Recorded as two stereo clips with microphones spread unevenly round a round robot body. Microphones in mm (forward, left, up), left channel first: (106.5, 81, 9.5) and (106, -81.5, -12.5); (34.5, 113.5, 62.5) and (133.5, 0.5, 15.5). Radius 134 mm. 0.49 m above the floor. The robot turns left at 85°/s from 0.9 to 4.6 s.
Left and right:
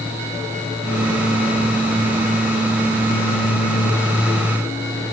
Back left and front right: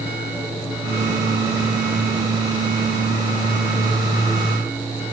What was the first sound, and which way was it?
Only background noise.